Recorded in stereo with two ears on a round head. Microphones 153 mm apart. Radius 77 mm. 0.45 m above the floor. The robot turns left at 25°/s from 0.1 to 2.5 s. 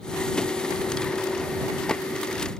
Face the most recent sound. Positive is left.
No sound to turn to.